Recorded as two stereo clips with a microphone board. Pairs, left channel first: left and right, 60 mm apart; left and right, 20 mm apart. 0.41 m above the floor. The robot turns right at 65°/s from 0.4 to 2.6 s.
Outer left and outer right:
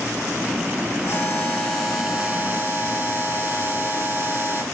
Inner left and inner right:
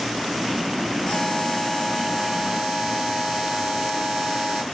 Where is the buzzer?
125° left, 3 m; by 4.6 s 135° right, 3 m.